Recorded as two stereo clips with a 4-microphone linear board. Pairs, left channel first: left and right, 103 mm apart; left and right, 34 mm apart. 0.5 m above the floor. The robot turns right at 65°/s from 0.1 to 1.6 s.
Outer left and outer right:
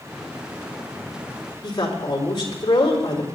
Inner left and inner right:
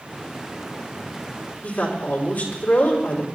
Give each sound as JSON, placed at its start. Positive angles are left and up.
{"t": 1.6, "sound": "a woman speaking", "side_deg": 65, "distance_m": 4.0}